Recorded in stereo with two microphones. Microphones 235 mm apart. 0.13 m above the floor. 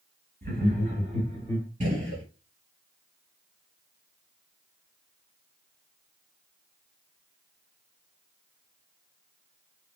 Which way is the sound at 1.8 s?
30° right (ahead or behind).